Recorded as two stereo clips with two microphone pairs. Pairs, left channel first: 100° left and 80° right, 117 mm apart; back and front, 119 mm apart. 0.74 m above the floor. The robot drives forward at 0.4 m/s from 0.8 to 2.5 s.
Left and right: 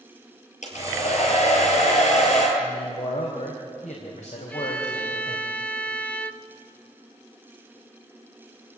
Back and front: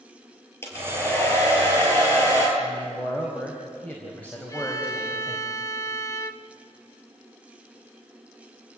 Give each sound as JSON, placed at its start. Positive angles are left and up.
{"t": 0.6, "sound": "a hair dryer", "azimuth_deg": 110, "distance_m": 6.0}
{"t": 2.6, "sound": "a man speaking", "azimuth_deg": 100, "distance_m": 4.0}
{"t": 4.5, "sound": "a violin", "azimuth_deg": 160, "distance_m": 0.9}